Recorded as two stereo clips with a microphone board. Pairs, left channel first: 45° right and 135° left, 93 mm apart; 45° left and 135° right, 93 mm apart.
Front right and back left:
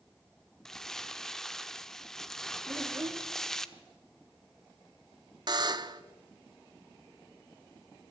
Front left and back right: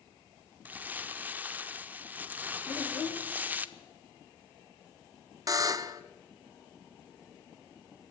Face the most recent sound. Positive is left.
turn(degrees=175)